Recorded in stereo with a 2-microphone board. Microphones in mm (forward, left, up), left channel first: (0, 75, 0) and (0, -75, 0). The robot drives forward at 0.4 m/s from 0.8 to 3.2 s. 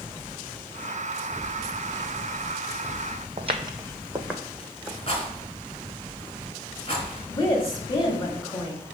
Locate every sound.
3.4 s footsteps: 45° right (ahead or behind), 0.6 m; by 5.0 s centre (ahead or behind), 1.3 m
5.1 s a rattle: 40° left (ahead or behind), 1.5 m
7.3 s a woman speaking: 25° left (ahead or behind), 1.5 m